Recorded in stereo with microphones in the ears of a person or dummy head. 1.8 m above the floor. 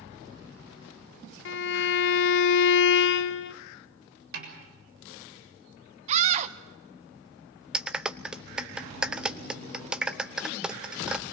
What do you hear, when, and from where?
1.4 s a violin: 70° left (ahead or behind), 0.7 m
4.3 s a snare drum: 65° right (ahead or behind), 7 m
6.1 s a scream: 40° right (ahead or behind), 1.2 m
7.7 s a clap: 5° right (ahead or behind), 0.8 m